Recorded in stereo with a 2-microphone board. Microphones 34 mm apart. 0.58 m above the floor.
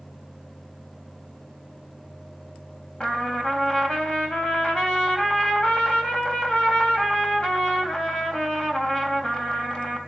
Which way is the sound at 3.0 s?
25° left (ahead or behind).